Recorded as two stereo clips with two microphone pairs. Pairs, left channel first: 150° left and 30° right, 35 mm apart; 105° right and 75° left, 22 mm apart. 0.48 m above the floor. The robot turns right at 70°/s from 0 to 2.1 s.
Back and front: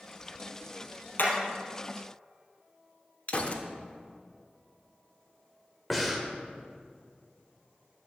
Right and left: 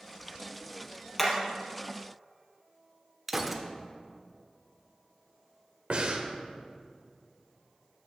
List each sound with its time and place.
1.2 s hammering: 170° left, 3.5 m; by 1.3 s straight behind, 3.5 m
3.3 s a gunshot: 150° left, 0.9 m
5.9 s breathing: 60° left, 1.2 m